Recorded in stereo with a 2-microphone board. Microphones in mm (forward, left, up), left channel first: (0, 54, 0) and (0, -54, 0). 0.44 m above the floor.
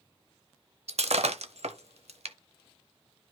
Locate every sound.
0.9 s breaking glass: 75° right (ahead or behind), 0.8 m